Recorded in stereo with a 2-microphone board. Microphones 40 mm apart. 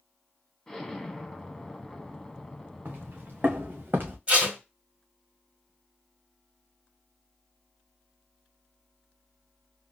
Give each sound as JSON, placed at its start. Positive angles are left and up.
{"t": 0.7, "sound": "an explosion", "side_deg": 15, "distance_m": 0.9}
{"t": 2.9, "sound": "footsteps", "side_deg": -55, "distance_m": 2.5}
{"t": 4.3, "sound": "tape being pulled", "side_deg": -30, "distance_m": 2.5}